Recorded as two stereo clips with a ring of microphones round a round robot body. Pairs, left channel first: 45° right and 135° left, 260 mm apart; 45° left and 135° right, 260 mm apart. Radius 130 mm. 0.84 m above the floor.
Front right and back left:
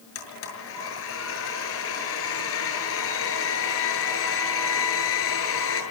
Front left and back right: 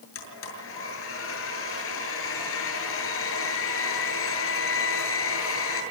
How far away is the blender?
About 7.5 m.